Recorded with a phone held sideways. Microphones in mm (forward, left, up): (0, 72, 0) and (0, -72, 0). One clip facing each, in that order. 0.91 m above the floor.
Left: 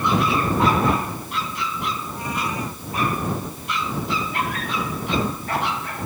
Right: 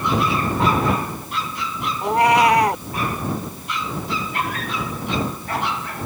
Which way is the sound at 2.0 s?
80° right.